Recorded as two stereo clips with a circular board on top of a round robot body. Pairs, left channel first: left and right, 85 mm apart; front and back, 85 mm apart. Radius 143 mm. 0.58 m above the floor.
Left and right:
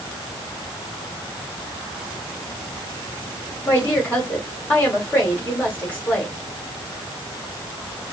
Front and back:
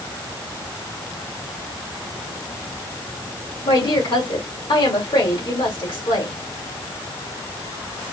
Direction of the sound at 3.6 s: 20° left.